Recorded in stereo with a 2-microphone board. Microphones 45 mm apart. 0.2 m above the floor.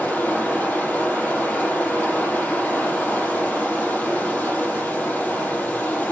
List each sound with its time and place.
0.0 s running water: 40° left (ahead or behind), 5.5 m